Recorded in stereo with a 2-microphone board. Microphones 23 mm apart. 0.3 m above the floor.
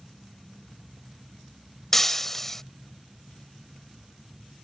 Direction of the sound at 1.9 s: 15° left (ahead or behind).